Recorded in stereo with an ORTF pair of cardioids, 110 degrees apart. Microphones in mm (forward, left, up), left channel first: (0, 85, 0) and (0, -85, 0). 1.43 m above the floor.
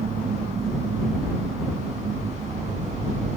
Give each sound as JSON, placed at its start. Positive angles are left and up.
{"t": 0.0, "sound": "a machine running", "azimuth_deg": -40}